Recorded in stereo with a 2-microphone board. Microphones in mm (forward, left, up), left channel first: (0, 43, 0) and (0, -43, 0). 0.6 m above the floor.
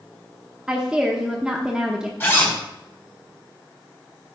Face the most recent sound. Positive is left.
turn(degrees=25)  # may be behind; listen again after turning